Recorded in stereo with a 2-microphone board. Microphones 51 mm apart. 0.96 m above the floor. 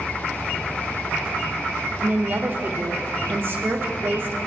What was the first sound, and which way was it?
A woman speaking, 45° right (ahead or behind).